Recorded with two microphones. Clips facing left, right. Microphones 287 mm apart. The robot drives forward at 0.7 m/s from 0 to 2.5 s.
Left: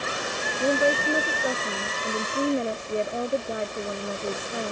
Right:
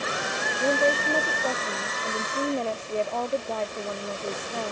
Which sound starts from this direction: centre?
A woman speaking, at 0.6 s.